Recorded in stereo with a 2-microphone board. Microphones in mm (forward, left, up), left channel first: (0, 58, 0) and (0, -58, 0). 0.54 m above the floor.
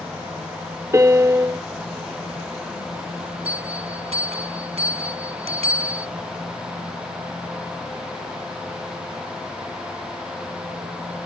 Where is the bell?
65° right (ahead or behind).